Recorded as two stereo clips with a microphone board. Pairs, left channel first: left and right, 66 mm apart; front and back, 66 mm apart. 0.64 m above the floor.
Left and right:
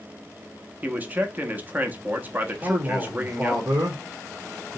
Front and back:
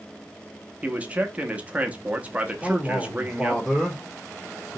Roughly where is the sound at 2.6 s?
Right.